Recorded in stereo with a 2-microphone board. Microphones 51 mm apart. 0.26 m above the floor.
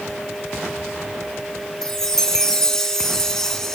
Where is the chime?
10° left (ahead or behind), 2.5 m.